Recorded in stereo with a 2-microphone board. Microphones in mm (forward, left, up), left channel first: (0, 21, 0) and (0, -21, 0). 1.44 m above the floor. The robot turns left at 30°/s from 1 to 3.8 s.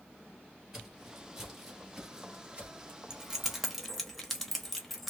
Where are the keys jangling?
15° right (ahead or behind), 0.6 m; by 5.1 s 5° left (ahead or behind), 0.6 m.